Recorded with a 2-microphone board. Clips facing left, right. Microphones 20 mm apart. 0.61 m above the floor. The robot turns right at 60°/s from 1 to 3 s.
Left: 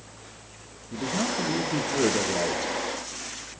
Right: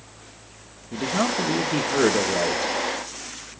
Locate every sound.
0.9 s a man speaking: 115° right, 1.5 m; by 2.7 s 10° right, 1.5 m